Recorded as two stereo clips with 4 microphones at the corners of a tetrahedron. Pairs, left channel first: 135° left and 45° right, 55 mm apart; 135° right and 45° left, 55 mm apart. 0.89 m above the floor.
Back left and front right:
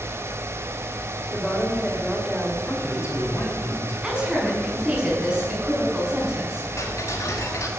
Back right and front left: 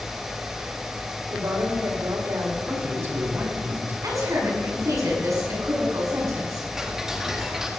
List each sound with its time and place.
1.3 s a woman speaking: 45° left, 4 m
2.6 s a man speaking: 90° left, 6 m
4.0 s a woman speaking: 30° left, 7 m
6.8 s ticking: 125° left, 2 m